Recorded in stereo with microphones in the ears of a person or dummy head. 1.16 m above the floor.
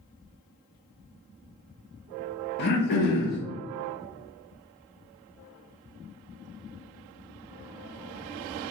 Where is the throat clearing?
50° left (ahead or behind), 0.7 m.